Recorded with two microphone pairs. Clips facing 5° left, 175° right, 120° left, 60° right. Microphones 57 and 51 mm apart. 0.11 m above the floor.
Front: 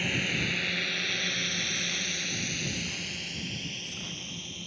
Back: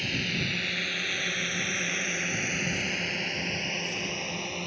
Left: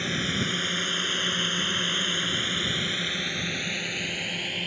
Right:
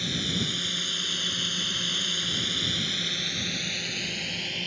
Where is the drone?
75° left; by 4.7 s 165° right.